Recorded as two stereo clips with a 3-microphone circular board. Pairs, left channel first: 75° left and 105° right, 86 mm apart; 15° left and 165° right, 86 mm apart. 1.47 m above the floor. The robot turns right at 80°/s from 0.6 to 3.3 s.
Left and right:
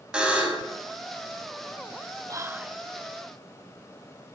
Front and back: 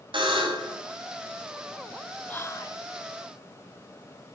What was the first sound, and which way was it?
A buzzer, 175° left.